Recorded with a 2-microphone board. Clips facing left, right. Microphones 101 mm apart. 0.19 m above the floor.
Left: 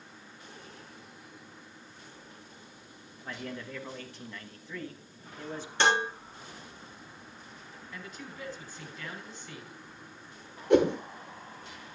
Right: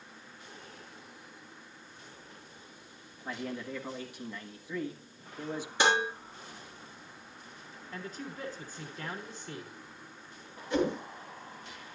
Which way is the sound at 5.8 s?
10° right (ahead or behind).